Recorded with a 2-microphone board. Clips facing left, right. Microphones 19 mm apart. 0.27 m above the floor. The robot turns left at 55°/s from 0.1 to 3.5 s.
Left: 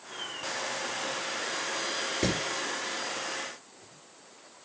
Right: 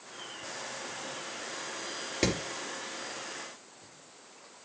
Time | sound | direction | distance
2.2 | hammering | 35° right (ahead or behind) | 5 m